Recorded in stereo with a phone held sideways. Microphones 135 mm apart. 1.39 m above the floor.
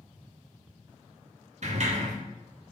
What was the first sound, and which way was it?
A sliding door, 55° right (ahead or behind).